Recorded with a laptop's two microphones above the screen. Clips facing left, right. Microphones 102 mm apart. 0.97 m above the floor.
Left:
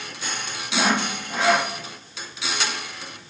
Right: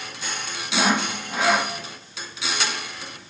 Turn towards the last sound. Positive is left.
turn(degrees=0)  # may be behind; listen again after turning